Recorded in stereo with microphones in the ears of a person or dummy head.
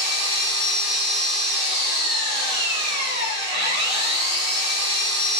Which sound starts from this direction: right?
An engine running, at 0.0 s.